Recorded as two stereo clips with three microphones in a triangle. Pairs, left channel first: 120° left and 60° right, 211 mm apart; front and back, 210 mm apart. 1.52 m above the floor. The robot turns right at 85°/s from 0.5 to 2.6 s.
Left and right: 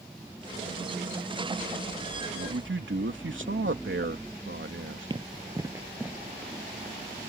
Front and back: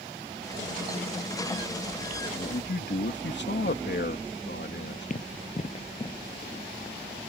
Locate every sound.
2.4 s a man speaking: 55° right; by 5.1 s 35° right
5.1 s running footsteps: 5° right; by 7.0 s 45° left